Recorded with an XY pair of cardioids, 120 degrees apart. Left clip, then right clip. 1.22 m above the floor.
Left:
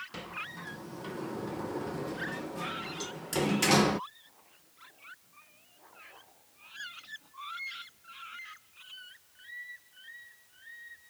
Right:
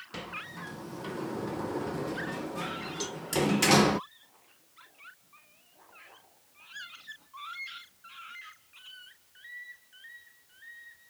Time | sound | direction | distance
0.1 | a sliding door | 20° right | ?
3.0 | a cowbell | 30° right | ?